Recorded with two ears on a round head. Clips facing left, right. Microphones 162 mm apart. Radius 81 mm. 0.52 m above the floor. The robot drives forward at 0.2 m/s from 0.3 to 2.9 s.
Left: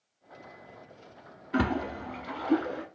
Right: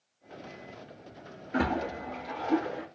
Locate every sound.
1.5 s a splash: 65° left (ahead or behind), 1.0 m; by 2.9 s 70° left (ahead or behind), 0.9 m